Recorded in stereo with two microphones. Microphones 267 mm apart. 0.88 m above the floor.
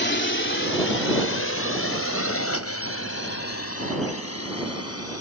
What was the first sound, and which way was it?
A drone, 40° left (ahead or behind).